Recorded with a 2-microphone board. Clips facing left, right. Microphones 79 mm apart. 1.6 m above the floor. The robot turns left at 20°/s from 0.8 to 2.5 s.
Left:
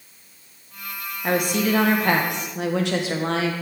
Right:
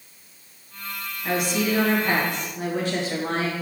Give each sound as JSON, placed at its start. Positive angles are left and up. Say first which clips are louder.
{"t": 1.2, "sound": "a woman speaking", "louder": "left 2 dB", "side_deg": 45, "distance_m": 1.3}